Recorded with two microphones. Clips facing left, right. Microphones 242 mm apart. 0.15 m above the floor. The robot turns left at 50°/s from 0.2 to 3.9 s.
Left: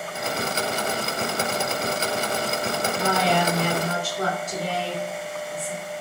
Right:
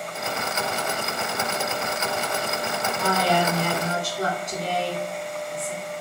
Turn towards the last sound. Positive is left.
turn(degrees=-15)  # may be behind; listen again after turning